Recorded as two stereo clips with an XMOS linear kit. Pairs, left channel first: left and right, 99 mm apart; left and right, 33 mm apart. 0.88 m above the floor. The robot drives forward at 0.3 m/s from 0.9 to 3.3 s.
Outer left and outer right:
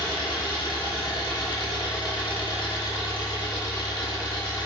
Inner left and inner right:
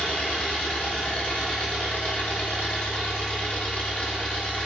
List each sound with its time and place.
0.0 s an engine running: 45° left (ahead or behind), 1.0 m; by 4.7 s 50° left (ahead or behind), 0.9 m